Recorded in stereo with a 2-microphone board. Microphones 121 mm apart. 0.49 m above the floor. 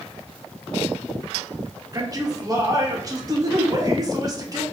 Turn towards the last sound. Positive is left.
turn(degrees=-30)  # may be behind; listen again after turning